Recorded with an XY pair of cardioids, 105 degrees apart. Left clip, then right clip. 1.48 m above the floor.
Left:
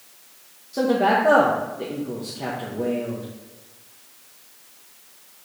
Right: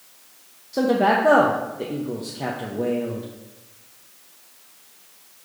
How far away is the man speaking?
About 0.7 m.